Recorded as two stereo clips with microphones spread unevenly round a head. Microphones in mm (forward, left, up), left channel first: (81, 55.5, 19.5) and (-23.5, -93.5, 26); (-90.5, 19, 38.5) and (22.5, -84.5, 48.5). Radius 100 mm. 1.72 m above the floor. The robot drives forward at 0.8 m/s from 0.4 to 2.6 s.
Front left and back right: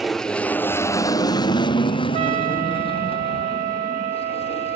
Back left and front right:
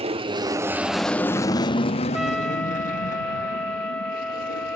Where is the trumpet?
120° right; by 4.8 s 140° right.